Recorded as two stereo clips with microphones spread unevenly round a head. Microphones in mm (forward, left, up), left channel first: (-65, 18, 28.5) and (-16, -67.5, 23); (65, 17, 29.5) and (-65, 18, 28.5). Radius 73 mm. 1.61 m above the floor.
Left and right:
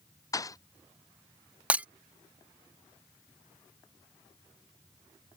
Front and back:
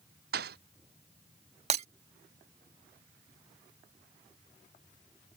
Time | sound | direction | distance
0.3 | a thud | 175° left | ?
1.7 | breaking glass | 135° right | ?